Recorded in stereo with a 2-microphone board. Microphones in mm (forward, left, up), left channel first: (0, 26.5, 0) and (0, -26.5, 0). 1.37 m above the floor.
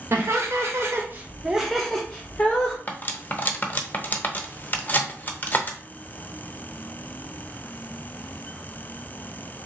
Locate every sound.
0.1 s laughter: 60° right (ahead or behind), 1.0 m; by 2.8 s 30° left (ahead or behind), 1.1 m
2.9 s cutlery clinking: 35° left (ahead or behind), 0.6 m